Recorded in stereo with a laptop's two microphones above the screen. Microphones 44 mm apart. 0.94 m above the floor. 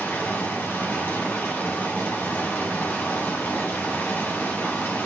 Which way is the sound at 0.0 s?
60° left (ahead or behind).